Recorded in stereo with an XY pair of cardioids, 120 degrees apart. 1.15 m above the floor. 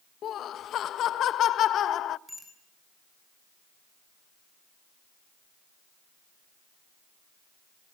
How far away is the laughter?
About 0.8 m.